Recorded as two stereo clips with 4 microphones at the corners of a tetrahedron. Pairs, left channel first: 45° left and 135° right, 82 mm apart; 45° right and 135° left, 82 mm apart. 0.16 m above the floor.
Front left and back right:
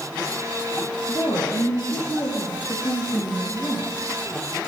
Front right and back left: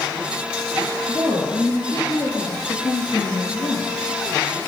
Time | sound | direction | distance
1.1 | a woman speaking | straight ahead | 4 m